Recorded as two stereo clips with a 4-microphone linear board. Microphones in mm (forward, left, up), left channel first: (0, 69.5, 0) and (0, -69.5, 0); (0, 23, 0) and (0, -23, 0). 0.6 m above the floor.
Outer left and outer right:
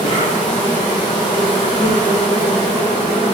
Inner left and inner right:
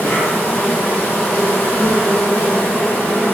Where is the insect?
60° left (ahead or behind), 1.2 m.